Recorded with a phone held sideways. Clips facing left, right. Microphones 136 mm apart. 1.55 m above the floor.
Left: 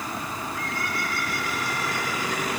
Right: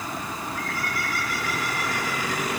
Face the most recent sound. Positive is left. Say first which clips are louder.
# even
turn(degrees=25)  # may be behind; listen again after turning